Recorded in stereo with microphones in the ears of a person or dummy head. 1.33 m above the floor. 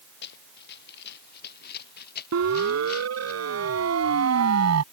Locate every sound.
0.2 s running footsteps: 60° left (ahead or behind); by 3.3 s 55° left (ahead or behind)
2.3 s a siren: 80° right; by 4.8 s 85° right